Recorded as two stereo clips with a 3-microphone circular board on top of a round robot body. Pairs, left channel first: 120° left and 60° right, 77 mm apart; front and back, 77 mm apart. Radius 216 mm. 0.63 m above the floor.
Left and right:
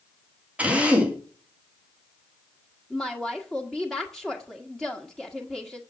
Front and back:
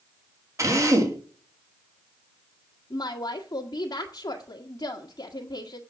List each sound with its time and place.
0.6 s a drill: 135° right, 2.5 m
2.9 s a woman speaking: 30° left, 1.6 m